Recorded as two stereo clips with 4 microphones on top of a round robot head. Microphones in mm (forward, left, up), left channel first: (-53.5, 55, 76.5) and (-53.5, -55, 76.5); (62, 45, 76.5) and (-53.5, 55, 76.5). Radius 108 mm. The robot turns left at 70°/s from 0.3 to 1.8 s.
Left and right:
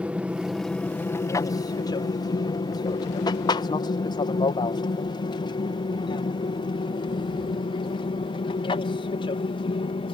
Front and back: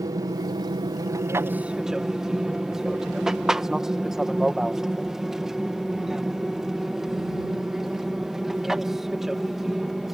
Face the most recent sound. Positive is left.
turn(degrees=90)